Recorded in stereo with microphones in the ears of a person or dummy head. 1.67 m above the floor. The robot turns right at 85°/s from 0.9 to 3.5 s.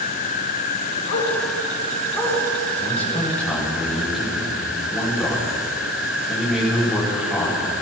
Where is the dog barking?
70° left (ahead or behind), 6 m; by 2.4 s centre (ahead or behind), 6 m.